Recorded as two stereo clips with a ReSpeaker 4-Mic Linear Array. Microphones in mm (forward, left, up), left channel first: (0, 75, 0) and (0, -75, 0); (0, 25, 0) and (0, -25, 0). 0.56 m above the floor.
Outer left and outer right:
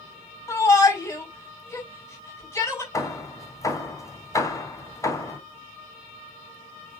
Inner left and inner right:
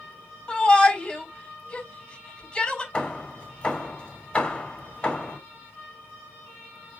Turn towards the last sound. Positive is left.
turn(degrees=20)  # may be behind; listen again after turning